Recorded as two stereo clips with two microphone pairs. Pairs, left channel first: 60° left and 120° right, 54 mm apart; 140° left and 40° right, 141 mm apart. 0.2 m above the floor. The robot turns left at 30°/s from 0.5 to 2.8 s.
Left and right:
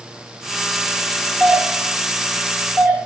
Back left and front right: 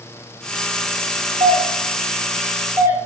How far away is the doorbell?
About 2.5 m.